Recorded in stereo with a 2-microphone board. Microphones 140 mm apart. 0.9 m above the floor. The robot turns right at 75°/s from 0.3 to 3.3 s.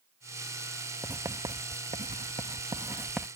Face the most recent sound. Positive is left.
turn(degrees=0)